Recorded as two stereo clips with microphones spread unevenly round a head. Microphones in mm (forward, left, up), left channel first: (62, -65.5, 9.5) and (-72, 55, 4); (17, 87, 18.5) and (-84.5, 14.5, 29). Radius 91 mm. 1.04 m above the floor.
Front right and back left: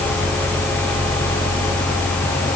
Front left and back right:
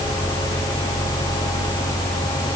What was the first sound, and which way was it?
Only background noise.